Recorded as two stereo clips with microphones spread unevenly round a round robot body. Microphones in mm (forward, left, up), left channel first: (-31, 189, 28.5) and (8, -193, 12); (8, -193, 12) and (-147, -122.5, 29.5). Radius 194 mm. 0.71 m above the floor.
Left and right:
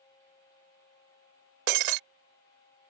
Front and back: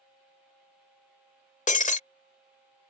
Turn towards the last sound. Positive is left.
turn(degrees=-70)